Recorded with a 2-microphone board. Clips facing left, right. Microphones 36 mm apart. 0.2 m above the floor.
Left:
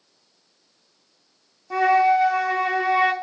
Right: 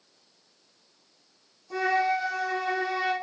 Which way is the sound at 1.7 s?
45° left (ahead or behind).